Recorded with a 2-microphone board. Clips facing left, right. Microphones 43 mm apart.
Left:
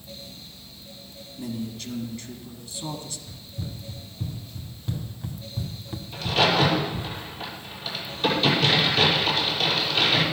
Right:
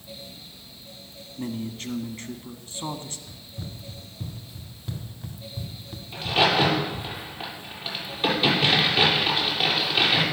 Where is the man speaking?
40° right (ahead or behind), 1.6 m.